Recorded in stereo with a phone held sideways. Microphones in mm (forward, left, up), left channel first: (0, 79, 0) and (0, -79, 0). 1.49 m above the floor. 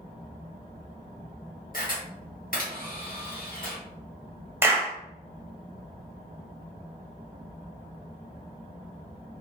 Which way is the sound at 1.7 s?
60° left (ahead or behind).